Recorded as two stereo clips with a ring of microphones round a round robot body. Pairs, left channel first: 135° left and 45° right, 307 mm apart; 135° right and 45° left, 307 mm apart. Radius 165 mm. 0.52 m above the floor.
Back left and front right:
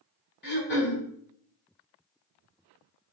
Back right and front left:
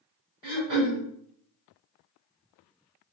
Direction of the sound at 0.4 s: 85° left.